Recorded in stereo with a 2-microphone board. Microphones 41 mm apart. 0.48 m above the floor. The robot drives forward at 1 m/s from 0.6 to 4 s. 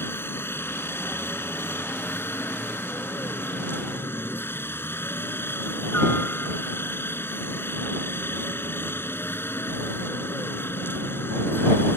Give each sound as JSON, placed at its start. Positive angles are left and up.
{"t": 0.0, "sound": "a helicopter", "side_deg": 60}